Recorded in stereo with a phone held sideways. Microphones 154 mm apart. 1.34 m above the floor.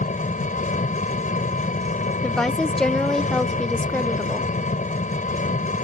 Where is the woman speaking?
5° left (ahead or behind).